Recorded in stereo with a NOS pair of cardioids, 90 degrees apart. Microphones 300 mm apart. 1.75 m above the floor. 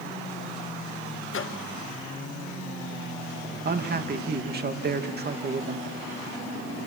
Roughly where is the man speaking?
Ahead right.